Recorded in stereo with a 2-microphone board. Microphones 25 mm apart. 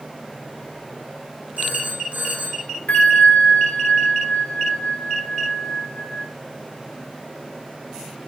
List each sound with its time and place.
1.6 s a phone ringing: 75° right (ahead or behind), 5.5 m
2.9 s a bell: 65° left (ahead or behind), 1.4 m